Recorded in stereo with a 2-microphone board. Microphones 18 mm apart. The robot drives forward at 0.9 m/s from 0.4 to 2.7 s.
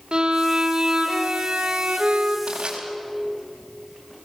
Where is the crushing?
60° right (ahead or behind), 4.5 m; by 2.8 s 65° right (ahead or behind), 4 m.